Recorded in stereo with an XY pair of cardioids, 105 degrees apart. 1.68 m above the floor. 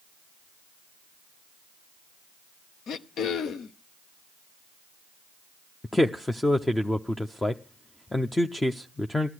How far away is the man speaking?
About 0.7 m.